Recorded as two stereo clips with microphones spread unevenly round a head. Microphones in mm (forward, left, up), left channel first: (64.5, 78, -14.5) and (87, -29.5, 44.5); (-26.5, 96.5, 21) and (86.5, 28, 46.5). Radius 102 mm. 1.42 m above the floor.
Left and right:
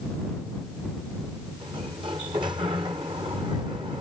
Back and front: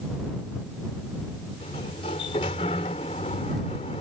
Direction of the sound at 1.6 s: 145° right.